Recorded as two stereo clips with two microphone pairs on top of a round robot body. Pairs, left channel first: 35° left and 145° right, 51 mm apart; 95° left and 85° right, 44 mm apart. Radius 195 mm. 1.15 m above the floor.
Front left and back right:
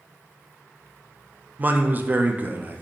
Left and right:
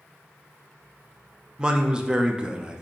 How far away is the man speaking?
About 0.6 m.